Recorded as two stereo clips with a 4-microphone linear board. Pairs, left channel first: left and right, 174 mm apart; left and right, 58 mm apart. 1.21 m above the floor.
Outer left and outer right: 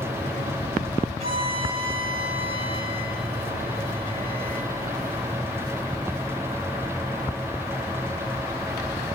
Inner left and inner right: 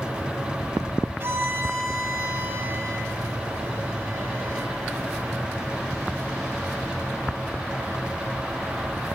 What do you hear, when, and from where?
1.2 s a violin: 35° right (ahead or behind), 3 m